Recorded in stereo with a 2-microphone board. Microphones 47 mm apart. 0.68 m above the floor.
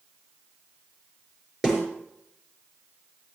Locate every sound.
1.6 s a snare drum: 20° right (ahead or behind), 5 m